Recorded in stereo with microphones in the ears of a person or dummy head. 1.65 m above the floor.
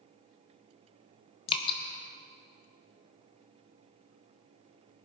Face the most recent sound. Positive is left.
turn(degrees=35)  # may be behind; listen again after turning